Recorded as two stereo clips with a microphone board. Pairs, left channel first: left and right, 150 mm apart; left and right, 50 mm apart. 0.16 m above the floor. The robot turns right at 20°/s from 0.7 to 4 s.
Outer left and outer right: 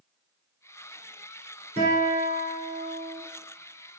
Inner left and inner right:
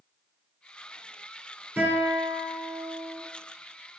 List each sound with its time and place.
1.8 s a guitar: 45° right (ahead or behind), 1.4 m; by 3.2 s 35° right (ahead or behind), 1.4 m